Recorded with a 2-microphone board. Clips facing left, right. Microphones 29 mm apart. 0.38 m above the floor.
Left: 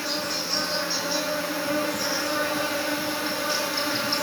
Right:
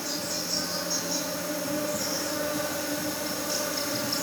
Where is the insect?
35° left (ahead or behind), 4.5 m.